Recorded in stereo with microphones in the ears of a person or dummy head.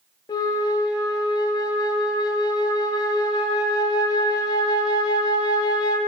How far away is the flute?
About 0.9 m.